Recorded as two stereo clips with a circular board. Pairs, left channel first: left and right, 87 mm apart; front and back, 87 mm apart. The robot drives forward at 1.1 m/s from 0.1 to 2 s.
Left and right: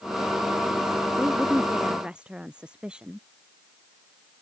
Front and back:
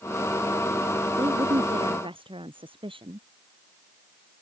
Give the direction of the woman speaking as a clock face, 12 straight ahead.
6 o'clock.